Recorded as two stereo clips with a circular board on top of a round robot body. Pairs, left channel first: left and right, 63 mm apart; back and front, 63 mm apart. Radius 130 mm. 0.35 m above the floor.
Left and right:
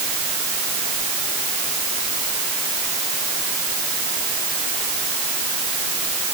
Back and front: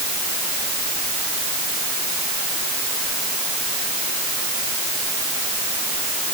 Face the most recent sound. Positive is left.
No sound to turn to.